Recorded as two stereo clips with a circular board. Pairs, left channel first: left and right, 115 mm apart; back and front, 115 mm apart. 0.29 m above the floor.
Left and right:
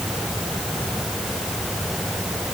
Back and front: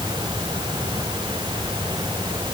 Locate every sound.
Only background noise.